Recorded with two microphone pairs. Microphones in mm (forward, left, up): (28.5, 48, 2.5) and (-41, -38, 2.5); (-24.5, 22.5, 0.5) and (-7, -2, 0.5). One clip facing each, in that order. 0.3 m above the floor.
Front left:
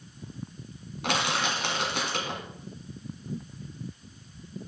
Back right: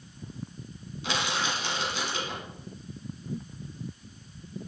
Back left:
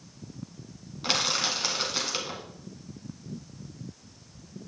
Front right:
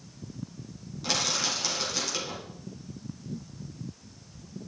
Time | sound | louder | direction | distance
1.0 | crushing | front left 2 dB, back left 2 dB | 70° left | 2 m